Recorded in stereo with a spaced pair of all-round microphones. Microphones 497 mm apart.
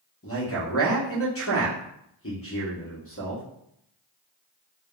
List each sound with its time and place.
0.2 s a man speaking: 25° left (ahead or behind), 0.9 m